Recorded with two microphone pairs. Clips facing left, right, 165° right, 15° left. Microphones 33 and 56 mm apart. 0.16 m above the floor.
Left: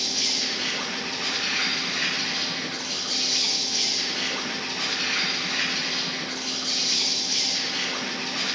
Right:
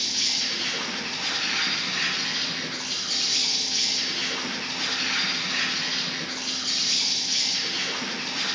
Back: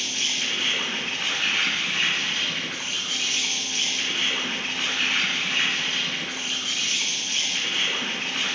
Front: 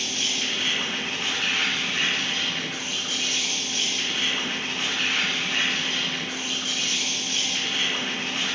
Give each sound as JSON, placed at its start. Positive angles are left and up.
{"t": 0.0, "sound": "an insect", "azimuth_deg": -160, "distance_m": 1.8}